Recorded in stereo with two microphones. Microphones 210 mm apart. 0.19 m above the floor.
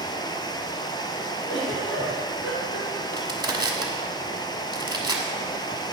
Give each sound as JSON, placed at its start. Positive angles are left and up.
{"t": 0.0, "sound": "running water", "side_deg": 20, "distance_m": 0.7}
{"t": 1.5, "sound": "a giggle", "side_deg": 65, "distance_m": 3.5}
{"t": 3.1, "sound": "crushing", "side_deg": -20, "distance_m": 1.4}